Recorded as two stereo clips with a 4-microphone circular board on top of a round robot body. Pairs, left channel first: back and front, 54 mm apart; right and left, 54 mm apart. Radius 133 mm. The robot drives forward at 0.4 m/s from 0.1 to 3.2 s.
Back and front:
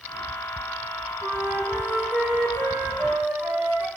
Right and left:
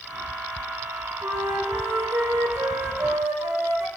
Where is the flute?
55° left, 5.5 m; by 3.9 s 65° left, 5 m.